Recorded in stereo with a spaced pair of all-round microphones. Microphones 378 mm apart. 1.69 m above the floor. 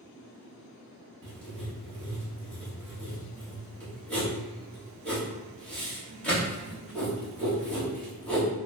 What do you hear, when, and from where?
1.2 s writing: 5° left (ahead or behind), 1.4 m